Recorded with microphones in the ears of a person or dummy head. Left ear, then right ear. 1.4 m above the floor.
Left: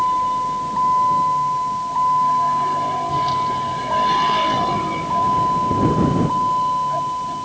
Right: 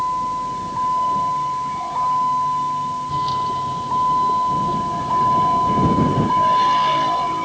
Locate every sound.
0.0 s a vehicle: 5° left (ahead or behind); by 7.5 s 20° right (ahead or behind)